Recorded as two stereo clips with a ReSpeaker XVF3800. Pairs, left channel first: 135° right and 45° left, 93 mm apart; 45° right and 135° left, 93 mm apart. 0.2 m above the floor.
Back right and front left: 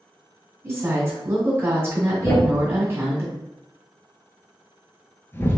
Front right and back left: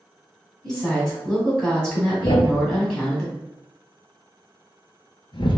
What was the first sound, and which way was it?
A woman speaking, 30° left.